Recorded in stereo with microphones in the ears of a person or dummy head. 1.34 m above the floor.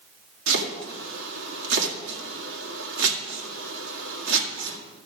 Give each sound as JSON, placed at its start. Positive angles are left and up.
{"t": 0.5, "sound": "chopping", "side_deg": -75, "distance_m": 1.7}